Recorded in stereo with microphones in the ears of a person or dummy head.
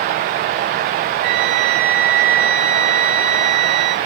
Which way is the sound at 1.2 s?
25° right (ahead or behind).